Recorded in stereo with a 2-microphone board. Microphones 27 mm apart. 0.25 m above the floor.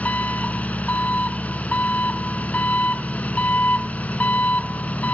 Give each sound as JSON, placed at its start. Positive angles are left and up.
{"t": 0.0, "sound": "an engine running", "side_deg": 70, "distance_m": 0.8}